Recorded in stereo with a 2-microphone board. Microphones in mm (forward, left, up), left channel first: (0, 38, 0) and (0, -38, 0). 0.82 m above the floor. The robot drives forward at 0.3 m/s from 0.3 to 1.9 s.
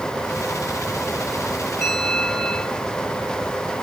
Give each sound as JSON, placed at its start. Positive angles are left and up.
{"t": 1.8, "sound": "a bell", "side_deg": 10, "distance_m": 9.0}